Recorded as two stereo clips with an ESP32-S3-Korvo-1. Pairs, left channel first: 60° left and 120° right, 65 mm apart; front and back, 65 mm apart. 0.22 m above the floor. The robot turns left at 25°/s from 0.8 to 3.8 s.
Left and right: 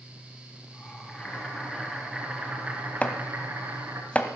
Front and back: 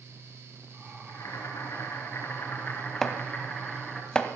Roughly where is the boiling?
Ahead.